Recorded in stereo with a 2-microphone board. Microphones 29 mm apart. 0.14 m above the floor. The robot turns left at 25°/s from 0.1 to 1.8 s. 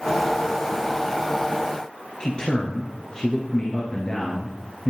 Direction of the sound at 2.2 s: 30° left (ahead or behind).